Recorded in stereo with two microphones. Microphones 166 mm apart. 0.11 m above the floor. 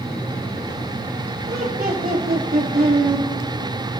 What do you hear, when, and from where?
1.5 s laughter: 65° right (ahead or behind), 6.5 m